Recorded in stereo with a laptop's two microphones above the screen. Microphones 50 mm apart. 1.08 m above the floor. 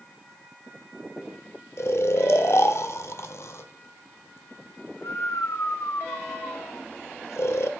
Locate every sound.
1.8 s snoring: 60° left (ahead or behind), 1.2 m